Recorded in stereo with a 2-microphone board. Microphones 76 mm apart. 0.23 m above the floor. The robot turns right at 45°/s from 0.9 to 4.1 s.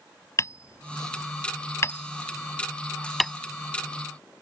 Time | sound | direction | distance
0.4 | hammering | 45° left (ahead or behind) | ?